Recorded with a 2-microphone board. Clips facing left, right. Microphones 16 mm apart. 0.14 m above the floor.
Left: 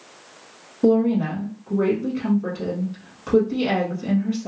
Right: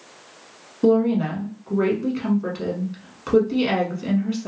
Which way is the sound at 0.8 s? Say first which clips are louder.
Even; 20° right (ahead or behind).